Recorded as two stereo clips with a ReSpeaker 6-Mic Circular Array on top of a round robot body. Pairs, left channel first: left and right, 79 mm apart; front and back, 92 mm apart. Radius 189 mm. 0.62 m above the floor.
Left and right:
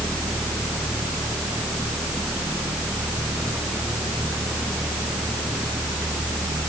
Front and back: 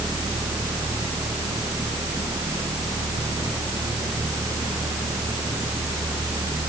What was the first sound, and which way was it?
Only background noise.